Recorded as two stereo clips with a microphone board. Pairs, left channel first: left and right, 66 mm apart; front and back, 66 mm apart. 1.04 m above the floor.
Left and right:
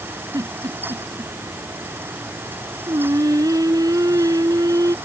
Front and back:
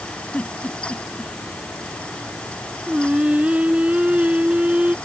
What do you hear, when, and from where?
0.3 s a giggle: 70° right
2.9 s singing: 110° right